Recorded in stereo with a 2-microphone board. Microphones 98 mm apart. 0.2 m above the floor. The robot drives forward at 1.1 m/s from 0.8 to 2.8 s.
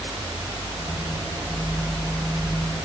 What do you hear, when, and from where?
Only background noise.